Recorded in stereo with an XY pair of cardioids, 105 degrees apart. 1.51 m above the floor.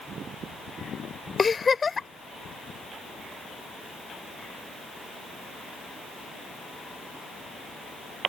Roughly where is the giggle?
Ahead left.